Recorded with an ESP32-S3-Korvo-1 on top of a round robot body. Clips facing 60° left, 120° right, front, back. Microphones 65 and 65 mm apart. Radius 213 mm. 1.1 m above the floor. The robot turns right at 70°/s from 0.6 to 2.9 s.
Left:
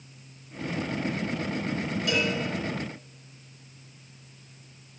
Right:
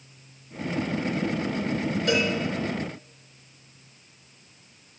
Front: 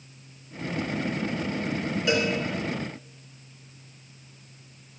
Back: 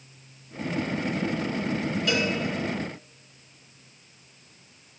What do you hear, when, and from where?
2.1 s a cowbell: 65° right, 3 m; by 2.3 s 50° right, 3 m